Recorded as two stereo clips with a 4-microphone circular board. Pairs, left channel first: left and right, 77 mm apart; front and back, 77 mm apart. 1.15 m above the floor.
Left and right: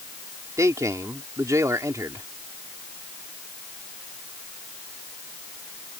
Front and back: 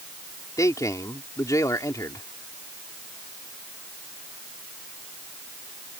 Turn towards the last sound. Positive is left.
turn(degrees=-45)